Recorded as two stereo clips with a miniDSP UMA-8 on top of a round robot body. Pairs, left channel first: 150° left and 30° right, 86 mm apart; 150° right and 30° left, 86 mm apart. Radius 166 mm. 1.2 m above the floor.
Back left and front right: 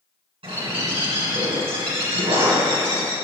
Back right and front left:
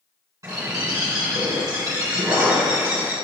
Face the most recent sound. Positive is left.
turn(degrees=-25)